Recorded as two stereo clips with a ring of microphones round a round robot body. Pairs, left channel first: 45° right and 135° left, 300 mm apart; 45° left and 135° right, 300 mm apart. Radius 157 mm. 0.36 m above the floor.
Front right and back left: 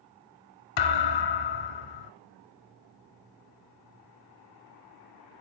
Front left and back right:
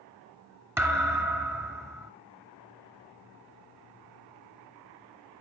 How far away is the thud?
About 1.7 m.